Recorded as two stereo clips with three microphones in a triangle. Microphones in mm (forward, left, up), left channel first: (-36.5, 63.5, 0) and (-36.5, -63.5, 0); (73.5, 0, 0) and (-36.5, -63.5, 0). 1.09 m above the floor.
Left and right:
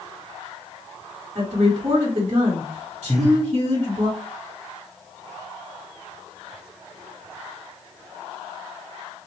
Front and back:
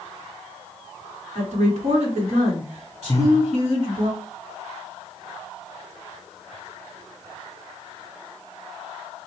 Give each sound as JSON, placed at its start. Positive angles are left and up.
{"t": 1.4, "sound": "a woman speaking", "azimuth_deg": -125, "distance_m": 1.8}
{"t": 3.1, "sound": "breathing", "azimuth_deg": -5, "distance_m": 0.6}